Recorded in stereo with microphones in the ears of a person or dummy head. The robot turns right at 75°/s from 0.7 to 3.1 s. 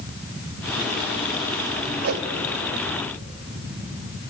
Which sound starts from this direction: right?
A whoosh, at 2.0 s.